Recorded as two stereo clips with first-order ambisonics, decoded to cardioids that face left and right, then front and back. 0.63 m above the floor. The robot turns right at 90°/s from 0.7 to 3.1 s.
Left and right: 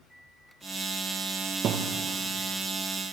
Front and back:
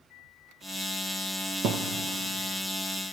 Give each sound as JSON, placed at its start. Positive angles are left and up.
{"t": 1.6, "sound": "a thud", "azimuth_deg": -145, "distance_m": 2.5}